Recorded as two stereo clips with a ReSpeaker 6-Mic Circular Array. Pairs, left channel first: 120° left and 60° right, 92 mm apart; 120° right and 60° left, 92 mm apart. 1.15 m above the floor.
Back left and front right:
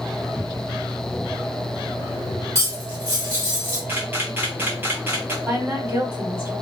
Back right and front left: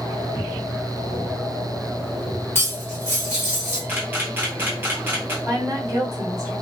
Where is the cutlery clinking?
5° right, 1.3 m.